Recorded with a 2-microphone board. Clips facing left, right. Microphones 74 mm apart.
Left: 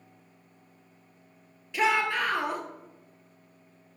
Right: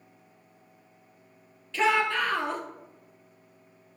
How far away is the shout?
About 1.9 m.